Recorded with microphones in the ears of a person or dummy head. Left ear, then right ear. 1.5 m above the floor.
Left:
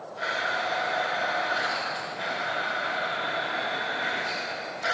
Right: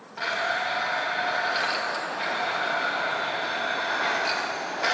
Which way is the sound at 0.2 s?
40° right (ahead or behind).